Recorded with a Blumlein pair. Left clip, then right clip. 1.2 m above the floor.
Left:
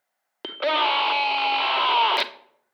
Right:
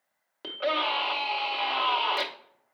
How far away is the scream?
About 0.7 m.